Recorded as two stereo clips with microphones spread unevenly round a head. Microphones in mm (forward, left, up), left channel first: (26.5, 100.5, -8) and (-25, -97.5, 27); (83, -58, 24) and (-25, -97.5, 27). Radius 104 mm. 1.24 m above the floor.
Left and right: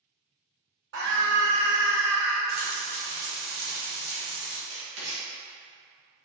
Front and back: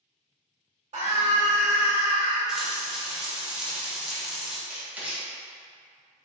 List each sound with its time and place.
0.9 s a scream: 135° right, 1.5 m; by 2.4 s 140° left, 1.2 m
2.5 s frying: 80° right, 1.6 m
4.7 s writing: 85° right, 1.9 m